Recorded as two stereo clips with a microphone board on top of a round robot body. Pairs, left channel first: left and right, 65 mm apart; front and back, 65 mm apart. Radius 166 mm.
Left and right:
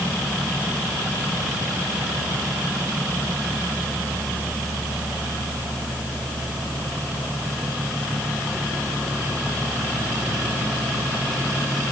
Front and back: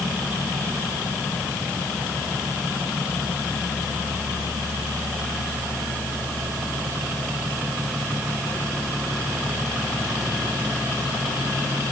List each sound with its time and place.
Only background noise.